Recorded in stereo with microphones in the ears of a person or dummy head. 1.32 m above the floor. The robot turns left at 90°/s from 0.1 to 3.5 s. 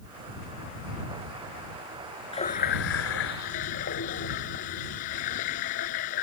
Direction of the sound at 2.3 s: 160° left.